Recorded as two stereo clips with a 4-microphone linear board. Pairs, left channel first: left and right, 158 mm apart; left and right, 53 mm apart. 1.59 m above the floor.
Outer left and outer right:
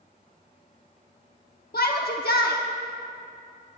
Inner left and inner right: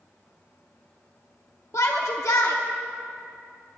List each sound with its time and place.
1.7 s a shout: 80° left, 1.1 m